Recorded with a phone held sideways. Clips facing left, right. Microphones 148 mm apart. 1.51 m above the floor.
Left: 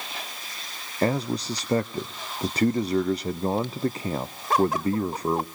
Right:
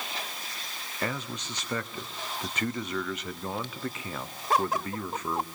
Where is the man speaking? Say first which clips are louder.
Left 10 dB; 35° left (ahead or behind), 0.5 m.